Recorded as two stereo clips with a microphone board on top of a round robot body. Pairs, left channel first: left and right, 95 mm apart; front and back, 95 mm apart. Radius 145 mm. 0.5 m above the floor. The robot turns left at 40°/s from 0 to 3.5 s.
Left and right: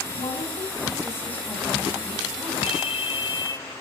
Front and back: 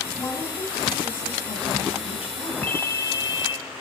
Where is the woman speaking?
65° left, 5 m; by 2.5 s 30° right, 5 m.